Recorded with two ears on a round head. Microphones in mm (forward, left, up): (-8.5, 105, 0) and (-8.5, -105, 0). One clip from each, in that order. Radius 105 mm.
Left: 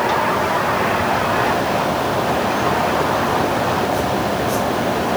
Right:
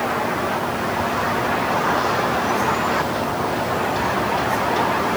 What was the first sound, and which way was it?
Only background noise.